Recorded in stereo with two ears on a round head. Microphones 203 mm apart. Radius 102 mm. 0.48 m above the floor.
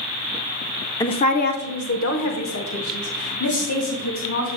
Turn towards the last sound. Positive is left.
turn(degrees=70)  # may be behind; listen again after turning